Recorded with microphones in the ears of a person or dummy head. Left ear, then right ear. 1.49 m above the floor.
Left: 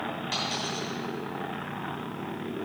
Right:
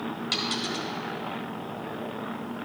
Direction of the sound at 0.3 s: 20° right (ahead or behind).